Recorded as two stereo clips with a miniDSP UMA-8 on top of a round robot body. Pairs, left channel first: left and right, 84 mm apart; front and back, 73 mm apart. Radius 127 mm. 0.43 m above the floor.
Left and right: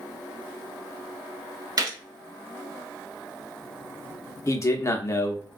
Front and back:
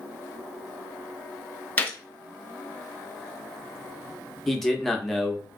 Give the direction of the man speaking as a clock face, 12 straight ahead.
9 o'clock.